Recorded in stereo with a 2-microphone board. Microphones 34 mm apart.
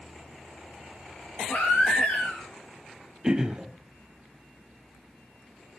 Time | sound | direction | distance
1.5 | a baby crying | 60° left (ahead or behind) | 9 m
3.2 | throat clearing | 20° right (ahead or behind) | 3 m